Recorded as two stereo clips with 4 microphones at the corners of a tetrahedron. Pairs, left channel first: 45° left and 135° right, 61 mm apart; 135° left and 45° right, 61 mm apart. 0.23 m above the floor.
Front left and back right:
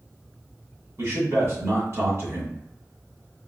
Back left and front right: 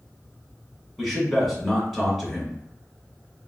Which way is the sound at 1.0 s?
130° right.